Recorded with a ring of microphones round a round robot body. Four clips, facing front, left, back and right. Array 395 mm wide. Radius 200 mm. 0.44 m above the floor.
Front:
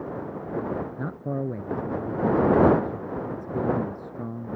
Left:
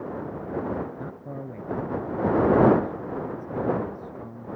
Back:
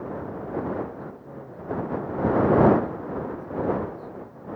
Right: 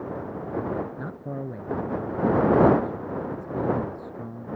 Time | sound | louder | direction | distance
1.0 | a man speaking | right 2 dB, front 8 dB | 10° right | ?